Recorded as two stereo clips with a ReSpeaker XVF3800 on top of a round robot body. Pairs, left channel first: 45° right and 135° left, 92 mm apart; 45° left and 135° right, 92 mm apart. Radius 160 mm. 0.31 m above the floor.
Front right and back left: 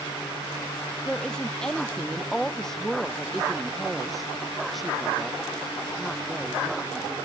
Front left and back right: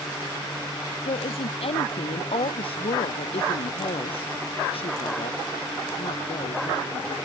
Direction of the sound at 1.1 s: 35° left.